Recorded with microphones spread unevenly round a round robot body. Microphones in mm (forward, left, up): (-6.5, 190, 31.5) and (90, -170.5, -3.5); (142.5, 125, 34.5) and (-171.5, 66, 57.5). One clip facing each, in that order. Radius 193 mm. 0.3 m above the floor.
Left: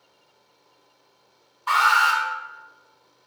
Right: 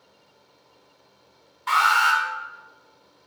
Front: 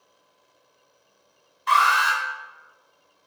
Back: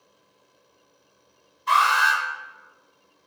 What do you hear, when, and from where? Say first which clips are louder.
1.7 s an alarm: left 1 dB, even; 15° right, 2.5 m